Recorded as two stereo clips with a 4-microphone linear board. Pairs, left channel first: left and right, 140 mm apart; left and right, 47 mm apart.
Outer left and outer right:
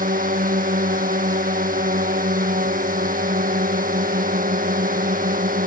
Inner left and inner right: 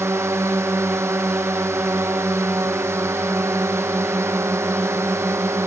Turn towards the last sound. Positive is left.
turn(degrees=-80)